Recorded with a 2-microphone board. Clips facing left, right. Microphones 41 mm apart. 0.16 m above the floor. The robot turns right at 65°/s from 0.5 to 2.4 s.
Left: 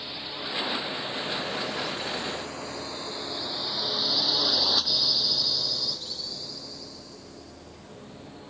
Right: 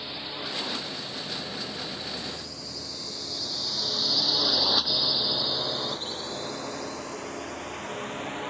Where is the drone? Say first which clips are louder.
Even; centre (ahead or behind); by 8.5 s 70° right (ahead or behind).